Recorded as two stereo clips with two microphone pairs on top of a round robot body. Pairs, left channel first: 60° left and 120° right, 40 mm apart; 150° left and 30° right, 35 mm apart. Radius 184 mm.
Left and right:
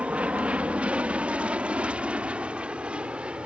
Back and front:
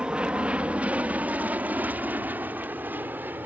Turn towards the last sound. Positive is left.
turn(degrees=-55)